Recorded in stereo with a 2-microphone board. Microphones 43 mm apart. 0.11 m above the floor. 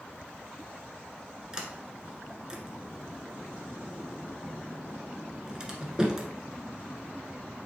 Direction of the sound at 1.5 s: 15° right (ahead or behind).